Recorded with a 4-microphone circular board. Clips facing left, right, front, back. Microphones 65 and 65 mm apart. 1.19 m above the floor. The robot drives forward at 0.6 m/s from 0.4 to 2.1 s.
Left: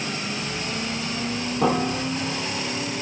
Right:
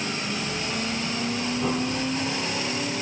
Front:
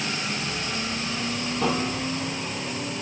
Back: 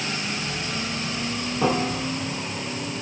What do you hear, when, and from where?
1.6 s a piano: 105° left, 2 m; by 2.4 s 115° left, 2 m